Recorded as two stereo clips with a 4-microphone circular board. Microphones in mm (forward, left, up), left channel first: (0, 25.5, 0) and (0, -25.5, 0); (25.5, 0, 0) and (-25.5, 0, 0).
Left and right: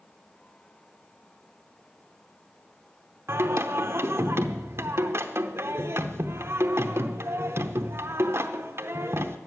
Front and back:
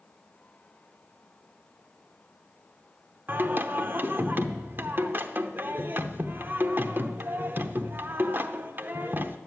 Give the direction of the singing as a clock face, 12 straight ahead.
4 o'clock.